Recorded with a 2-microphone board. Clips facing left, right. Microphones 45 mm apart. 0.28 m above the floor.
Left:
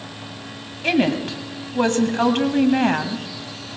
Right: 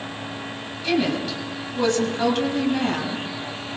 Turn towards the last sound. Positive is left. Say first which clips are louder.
# left 3 dB
turn(degrees=50)  # may be behind; listen again after turning